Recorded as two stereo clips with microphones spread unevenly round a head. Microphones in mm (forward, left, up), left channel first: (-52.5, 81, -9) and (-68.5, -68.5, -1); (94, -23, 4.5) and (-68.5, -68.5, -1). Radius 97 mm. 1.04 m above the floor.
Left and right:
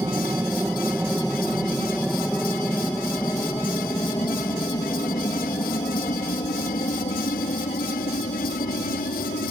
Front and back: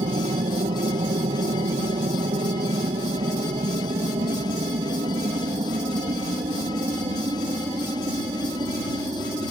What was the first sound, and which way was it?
An aircraft, 165° right.